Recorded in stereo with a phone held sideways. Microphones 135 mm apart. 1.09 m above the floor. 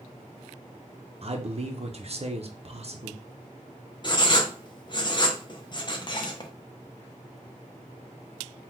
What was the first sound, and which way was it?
A man speaking, 50° right (ahead or behind).